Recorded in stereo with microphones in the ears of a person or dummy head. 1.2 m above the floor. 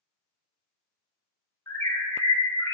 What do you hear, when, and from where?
1.7 s a bird: 15° left (ahead or behind), 0.8 m